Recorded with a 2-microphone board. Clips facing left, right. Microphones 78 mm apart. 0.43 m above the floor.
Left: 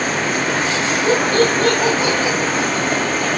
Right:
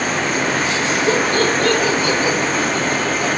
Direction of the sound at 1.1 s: 35° left (ahead or behind).